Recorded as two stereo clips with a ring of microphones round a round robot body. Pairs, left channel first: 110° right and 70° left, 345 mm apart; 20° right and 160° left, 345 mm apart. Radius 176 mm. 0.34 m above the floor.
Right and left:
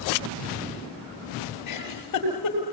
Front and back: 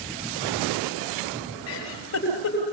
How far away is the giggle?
About 7 m.